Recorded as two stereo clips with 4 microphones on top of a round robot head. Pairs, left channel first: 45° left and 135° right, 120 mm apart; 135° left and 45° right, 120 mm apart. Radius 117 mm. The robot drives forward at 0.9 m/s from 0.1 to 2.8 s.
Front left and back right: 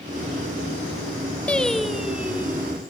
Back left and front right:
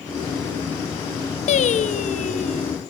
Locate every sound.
1.5 s singing: 125° left, 1.2 m; by 2.8 s 155° left, 2 m